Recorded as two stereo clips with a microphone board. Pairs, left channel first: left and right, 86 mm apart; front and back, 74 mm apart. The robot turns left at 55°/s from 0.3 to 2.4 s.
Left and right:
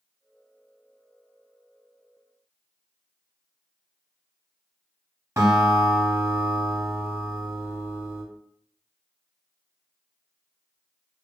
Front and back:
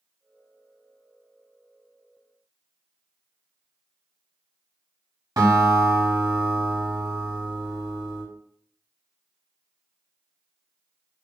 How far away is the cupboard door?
No cupboard door in this recording.